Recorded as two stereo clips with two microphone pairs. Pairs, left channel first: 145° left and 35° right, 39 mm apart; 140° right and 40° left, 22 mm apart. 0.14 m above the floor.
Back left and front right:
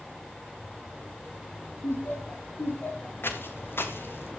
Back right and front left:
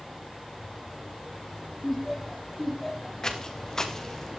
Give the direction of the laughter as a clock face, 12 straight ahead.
7 o'clock.